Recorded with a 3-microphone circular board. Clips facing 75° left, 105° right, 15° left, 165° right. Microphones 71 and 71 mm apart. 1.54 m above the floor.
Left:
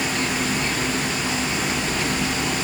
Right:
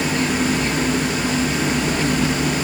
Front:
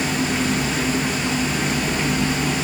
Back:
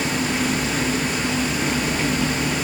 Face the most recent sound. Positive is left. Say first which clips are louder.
# right 4 dB, front 1 dB
turn(degrees=-80)